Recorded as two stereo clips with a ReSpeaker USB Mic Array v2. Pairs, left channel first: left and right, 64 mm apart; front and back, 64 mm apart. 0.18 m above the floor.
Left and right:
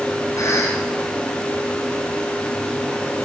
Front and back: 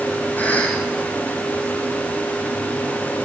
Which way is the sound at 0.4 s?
60° left.